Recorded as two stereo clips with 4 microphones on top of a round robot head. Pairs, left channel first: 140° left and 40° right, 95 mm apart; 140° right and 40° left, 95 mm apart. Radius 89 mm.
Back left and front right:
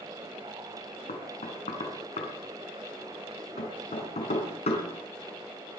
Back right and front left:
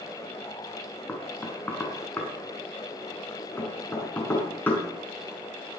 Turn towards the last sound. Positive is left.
turn(degrees=145)